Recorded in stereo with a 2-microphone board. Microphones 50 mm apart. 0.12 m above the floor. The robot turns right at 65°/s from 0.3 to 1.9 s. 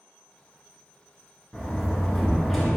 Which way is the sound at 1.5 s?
15° left (ahead or behind).